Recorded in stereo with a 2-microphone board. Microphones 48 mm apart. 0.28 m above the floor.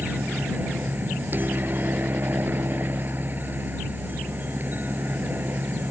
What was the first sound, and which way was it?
A helicopter, 40° right (ahead or behind).